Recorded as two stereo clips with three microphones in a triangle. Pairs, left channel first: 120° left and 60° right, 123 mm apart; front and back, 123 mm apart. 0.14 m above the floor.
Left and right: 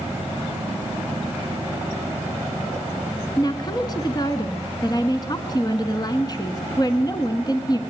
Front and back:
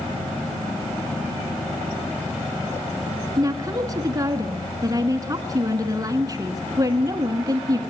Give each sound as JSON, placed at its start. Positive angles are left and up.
{"t": 3.4, "sound": "a woman speaking", "azimuth_deg": 145, "distance_m": 1.3}